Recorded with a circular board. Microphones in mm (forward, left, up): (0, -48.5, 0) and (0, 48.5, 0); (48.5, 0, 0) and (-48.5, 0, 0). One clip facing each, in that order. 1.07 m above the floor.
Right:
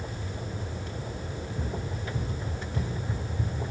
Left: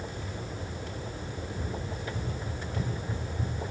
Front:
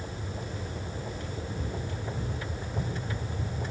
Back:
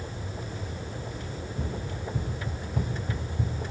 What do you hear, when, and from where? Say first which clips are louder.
1.3 s running footsteps: right 2 dB, back 3 dB; 155° right, 5 m; by 3.6 s straight behind, 4.5 m